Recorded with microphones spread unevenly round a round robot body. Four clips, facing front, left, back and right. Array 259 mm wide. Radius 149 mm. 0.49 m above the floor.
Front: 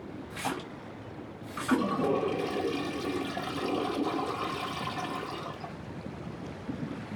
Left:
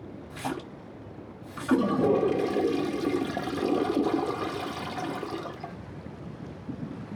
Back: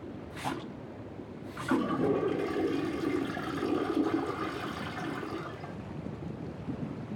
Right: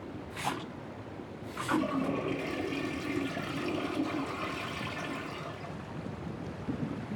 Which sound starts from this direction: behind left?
A splash, at 0.3 s.